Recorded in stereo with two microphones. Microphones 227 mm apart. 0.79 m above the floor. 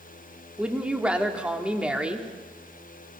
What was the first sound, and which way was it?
A woman speaking, 5° right (ahead or behind).